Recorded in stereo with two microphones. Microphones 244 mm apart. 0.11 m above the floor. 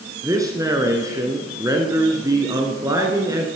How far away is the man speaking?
About 1.4 m.